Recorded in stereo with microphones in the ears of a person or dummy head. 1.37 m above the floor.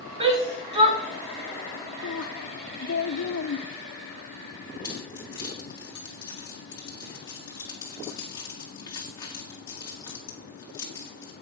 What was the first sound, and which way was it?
A shout, 30° right (ahead or behind).